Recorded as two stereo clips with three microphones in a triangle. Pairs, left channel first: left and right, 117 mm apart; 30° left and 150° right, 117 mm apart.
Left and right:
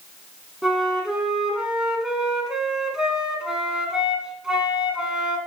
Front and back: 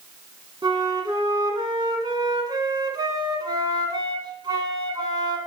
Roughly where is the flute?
Behind.